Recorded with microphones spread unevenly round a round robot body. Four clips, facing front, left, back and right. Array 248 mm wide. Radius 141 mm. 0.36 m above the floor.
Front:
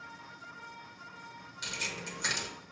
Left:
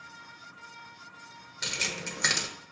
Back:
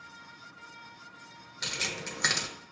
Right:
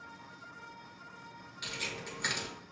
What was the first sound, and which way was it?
Keys jangling, 120° left.